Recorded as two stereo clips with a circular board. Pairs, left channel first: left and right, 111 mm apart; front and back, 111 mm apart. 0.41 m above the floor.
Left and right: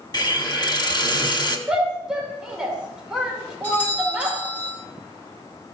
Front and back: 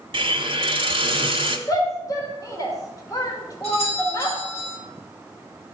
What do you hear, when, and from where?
0.1 s a hiss: 140° left, 1.1 m
1.7 s a shout: 10° right, 1.5 m
3.6 s a doorbell: 15° left, 4 m